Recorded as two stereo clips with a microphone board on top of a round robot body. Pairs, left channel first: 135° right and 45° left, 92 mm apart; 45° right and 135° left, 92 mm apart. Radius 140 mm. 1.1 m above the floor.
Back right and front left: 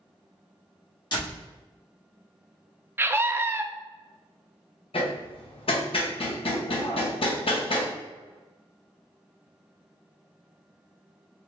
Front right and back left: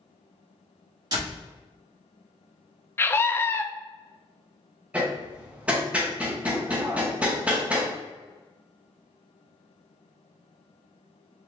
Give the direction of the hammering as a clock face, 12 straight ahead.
5 o'clock.